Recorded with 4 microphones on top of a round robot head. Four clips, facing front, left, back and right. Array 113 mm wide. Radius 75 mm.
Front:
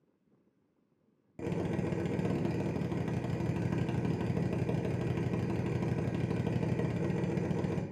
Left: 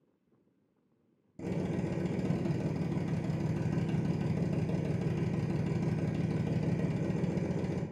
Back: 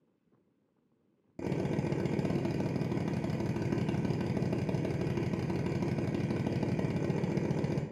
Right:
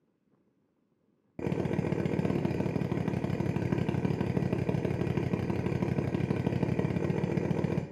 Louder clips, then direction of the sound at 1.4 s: Right 4 dB, back 1 dB; 110° right.